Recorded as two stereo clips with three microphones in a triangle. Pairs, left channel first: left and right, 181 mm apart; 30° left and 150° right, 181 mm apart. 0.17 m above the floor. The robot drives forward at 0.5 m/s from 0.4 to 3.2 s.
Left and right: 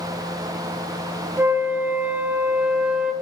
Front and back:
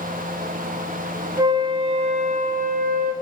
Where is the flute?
145° right, 0.7 m; by 3.1 s 175° right, 1.2 m.